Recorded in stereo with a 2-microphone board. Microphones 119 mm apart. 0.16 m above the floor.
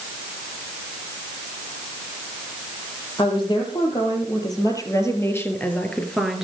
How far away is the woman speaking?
About 5 m.